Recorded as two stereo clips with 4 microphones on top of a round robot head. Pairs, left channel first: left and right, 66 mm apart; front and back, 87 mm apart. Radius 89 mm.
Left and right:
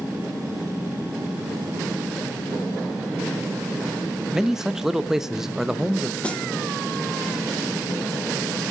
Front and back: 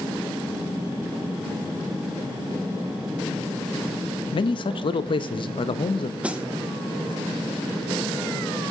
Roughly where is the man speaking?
Ahead.